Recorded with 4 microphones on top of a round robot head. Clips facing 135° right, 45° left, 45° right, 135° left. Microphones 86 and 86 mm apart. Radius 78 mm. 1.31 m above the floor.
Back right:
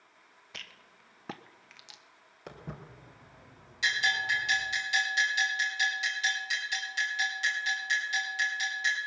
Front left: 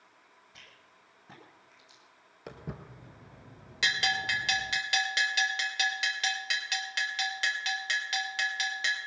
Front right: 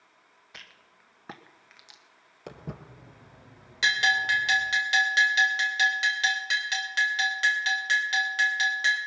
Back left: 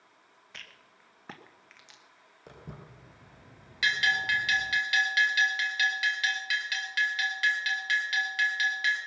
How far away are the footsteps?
About 1.5 m.